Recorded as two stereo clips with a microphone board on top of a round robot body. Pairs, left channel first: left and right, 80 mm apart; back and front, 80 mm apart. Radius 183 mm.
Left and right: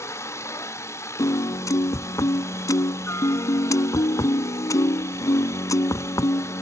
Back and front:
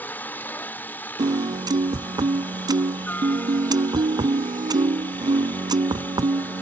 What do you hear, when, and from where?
0.0 s a helicopter: 120° left
1.2 s a piano: 40° left